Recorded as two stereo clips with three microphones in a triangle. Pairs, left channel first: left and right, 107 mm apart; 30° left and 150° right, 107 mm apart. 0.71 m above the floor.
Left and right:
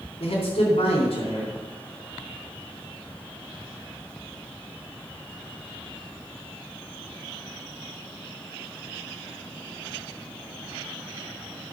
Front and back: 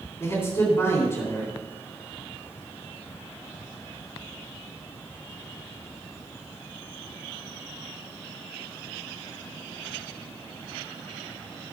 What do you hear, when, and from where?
0.2 s a man speaking: 90° left, 3 m